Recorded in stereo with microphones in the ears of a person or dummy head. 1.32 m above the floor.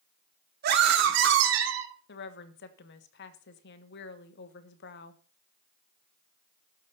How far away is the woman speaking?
About 1.3 m.